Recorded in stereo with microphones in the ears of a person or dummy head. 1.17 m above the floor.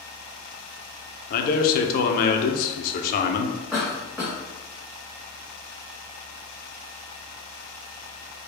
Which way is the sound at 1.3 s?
50° left (ahead or behind).